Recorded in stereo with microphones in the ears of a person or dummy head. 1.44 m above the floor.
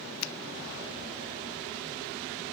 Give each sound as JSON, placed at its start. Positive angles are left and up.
{"t": 0.2, "sound": "a finger snap", "side_deg": 85, "distance_m": 0.7}